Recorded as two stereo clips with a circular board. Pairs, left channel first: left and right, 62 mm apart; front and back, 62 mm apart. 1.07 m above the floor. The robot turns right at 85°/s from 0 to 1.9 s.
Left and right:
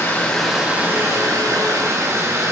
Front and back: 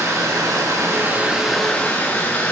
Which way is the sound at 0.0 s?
140° left.